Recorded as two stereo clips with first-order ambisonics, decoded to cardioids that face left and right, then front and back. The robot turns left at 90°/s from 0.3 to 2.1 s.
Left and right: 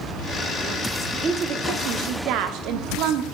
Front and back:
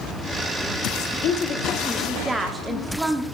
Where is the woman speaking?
20° right, 1.0 m; by 3.2 s 100° right, 1.0 m.